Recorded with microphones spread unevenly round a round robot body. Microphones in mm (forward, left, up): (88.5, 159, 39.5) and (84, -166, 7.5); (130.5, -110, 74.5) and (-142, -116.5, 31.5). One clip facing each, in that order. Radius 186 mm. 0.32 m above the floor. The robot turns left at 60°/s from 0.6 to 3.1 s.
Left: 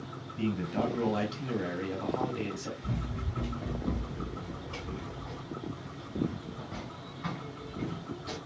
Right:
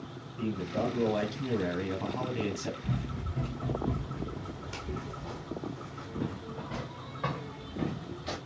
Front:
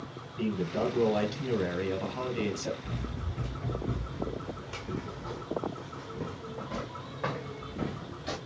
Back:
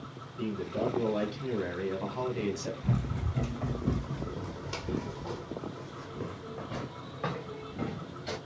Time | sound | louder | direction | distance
0.4 | a man speaking | left 1 dB, front 2 dB | 35° left | 1.7 m
2.8 | running footsteps | right 1 dB, back 4 dB | straight behind | 1.8 m